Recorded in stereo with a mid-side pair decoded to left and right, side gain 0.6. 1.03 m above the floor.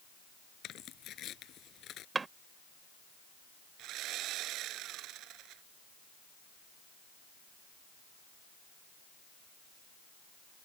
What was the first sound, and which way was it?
Tearing paper, 55° left.